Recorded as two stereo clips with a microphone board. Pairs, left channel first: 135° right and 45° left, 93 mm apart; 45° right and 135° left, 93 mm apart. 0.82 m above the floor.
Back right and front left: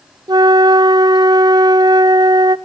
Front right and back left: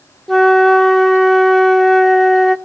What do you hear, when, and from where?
0.3 s a flute: 45° left, 0.5 m